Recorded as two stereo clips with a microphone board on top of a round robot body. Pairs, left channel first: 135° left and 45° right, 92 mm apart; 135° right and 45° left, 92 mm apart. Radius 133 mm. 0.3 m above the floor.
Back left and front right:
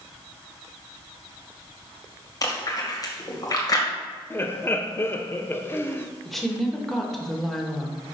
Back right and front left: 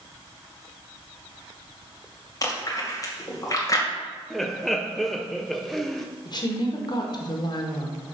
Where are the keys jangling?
No keys jangling in this recording.